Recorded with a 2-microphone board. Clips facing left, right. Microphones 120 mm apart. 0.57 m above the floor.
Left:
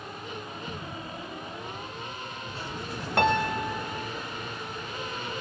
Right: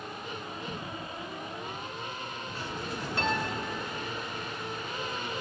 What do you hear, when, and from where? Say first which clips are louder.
0.7 s footsteps: left 1 dB; 25° left (ahead or behind), 4.5 m; by 2.7 s 30° left (ahead or behind), 6 m
3.2 s a piano: left 8 dB; 70° left (ahead or behind), 0.6 m